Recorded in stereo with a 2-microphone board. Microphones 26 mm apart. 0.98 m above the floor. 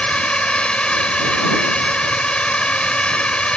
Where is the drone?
40° left (ahead or behind).